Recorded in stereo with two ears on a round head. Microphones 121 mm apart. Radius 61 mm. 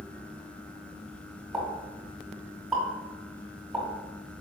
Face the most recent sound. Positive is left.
turn(degrees=0)  # may be behind; listen again after turning